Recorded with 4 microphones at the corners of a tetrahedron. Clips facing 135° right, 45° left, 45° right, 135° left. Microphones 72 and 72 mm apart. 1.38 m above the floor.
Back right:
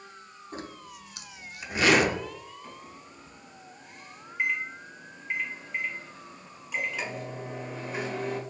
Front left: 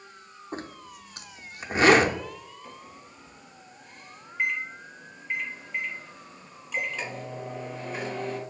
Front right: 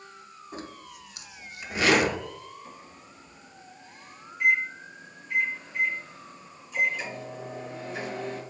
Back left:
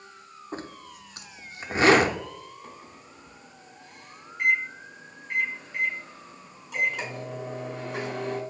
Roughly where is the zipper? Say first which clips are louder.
Front left 3 dB, back left 3 dB; left.